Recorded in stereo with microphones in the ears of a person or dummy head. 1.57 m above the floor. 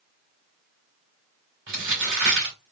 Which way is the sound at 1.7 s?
45° right (ahead or behind).